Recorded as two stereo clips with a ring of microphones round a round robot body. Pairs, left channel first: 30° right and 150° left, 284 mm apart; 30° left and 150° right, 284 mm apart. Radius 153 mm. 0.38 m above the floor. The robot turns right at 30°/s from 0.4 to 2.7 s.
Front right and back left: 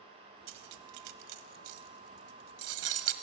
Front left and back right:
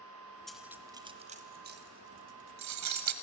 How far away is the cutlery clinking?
About 1.5 m.